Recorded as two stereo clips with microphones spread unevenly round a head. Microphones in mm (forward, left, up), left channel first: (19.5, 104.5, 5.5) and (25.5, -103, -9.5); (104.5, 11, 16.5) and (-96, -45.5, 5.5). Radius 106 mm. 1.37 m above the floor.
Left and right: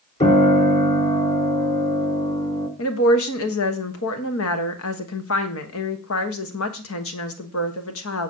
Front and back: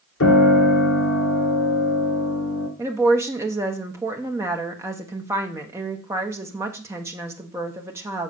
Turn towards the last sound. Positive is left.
turn(degrees=120)